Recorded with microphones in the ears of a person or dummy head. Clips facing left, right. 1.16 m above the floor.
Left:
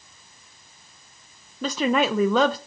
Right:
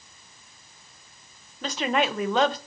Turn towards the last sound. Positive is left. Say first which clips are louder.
# left 4 dB
turn(degrees=70)  # may be behind; listen again after turning